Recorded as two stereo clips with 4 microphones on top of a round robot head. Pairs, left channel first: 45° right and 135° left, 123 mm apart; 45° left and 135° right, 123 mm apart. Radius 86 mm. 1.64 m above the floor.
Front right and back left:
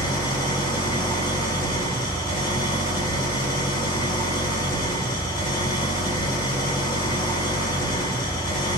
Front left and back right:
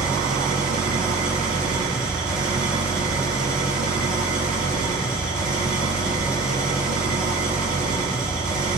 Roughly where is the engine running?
Right.